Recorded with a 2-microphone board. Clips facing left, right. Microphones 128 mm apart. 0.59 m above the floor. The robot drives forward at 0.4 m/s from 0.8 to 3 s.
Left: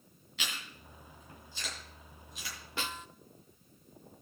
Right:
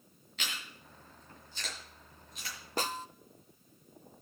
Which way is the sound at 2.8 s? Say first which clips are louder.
Right 5 dB; 40° right (ahead or behind).